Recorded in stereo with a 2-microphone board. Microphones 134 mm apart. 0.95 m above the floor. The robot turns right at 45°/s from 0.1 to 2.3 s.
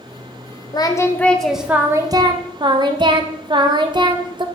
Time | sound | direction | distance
0.7 | singing | 145° left | 0.6 m